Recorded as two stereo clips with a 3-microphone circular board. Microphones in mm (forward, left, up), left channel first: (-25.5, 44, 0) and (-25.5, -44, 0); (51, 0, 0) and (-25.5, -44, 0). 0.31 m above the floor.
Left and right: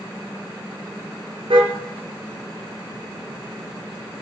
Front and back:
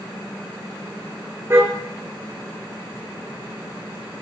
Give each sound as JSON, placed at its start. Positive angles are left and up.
{"t": 1.5, "sound": "a car horn", "azimuth_deg": -90, "distance_m": 3.5}